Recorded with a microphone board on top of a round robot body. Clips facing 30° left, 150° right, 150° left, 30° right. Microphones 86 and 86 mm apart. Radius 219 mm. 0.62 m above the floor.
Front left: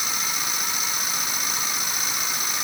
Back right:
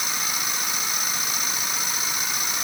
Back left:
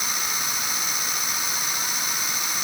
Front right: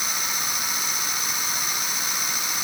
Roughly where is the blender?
I don't hear a blender.